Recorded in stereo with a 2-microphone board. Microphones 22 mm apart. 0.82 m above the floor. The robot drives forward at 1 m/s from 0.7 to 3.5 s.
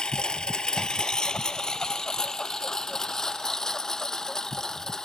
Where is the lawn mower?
35° left (ahead or behind); by 5.0 s 20° left (ahead or behind).